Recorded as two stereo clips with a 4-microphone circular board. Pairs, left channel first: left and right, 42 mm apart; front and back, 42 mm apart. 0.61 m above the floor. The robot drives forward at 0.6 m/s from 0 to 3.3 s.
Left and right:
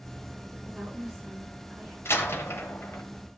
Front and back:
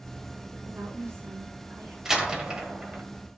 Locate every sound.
0.6 s a woman speaking: 170° right, 7.5 m
2.0 s a door slam: 100° left, 1.7 m; by 3.0 s 120° left, 2.0 m